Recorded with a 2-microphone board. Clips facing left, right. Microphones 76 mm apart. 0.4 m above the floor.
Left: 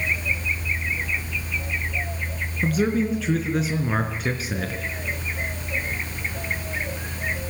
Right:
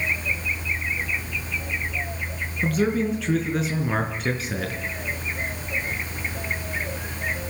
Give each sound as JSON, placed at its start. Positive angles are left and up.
{"t": 2.6, "sound": "a man speaking", "side_deg": 5, "distance_m": 4.5}